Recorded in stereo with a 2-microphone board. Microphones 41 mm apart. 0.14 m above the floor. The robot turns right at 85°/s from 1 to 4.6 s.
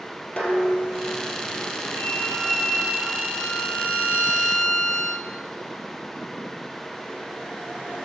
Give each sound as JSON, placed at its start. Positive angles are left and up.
{"t": 0.4, "sound": "dishes clattering", "azimuth_deg": 25, "distance_m": 2.5}
{"t": 1.9, "sound": "a violin", "azimuth_deg": 125, "distance_m": 1.5}